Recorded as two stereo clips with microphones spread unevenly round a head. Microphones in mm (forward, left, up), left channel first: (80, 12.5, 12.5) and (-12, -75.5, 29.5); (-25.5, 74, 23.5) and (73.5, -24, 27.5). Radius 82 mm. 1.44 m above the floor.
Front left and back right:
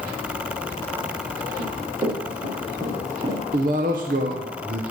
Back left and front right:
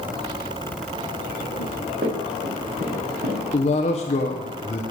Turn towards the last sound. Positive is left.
turn(degrees=-175)